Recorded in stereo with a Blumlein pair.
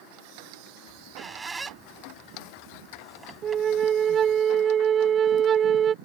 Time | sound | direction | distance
0.9 | a squeak | 15° right | ?
3.4 | a flute | 25° right | ?